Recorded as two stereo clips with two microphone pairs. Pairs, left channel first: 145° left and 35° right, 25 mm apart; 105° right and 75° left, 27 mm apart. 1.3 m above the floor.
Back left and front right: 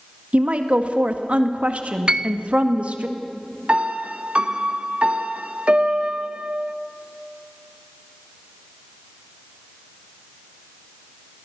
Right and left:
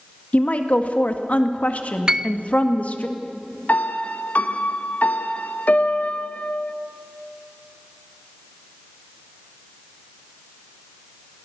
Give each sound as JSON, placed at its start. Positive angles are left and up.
{"t": 0.3, "sound": "a woman speaking", "azimuth_deg": -70, "distance_m": 1.9}
{"t": 2.1, "sound": "a piano", "azimuth_deg": 10, "distance_m": 0.6}
{"t": 3.7, "sound": "a piano", "azimuth_deg": -80, "distance_m": 1.0}